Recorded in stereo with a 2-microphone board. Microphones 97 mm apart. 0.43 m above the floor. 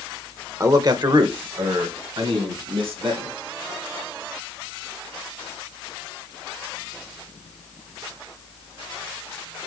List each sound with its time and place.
0.6 s a man speaking: 30° right (ahead or behind), 1.1 m; by 3.4 s 70° right (ahead or behind), 4 m